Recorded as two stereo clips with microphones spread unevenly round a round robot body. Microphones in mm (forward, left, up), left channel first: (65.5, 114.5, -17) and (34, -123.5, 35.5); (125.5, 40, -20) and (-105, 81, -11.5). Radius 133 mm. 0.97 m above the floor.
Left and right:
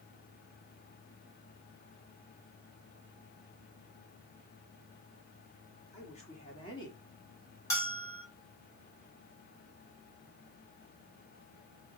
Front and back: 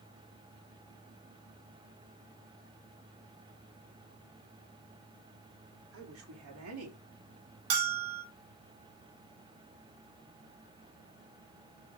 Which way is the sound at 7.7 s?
160° left.